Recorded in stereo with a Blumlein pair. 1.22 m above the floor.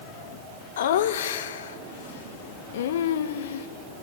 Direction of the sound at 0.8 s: 60° left.